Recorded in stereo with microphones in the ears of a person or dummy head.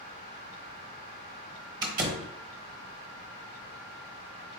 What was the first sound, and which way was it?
A door slam, 30° right (ahead or behind).